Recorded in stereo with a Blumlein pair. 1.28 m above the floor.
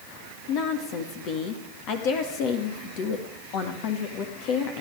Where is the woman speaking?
40° left, 1.9 m.